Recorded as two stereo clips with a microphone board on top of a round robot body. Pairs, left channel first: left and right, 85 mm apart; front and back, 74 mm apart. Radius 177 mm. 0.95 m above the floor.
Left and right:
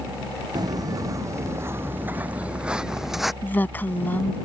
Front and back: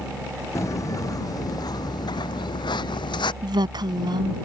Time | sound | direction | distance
0.6 | footsteps | 45° right | ?
3.4 | a woman speaking | 160° left | ?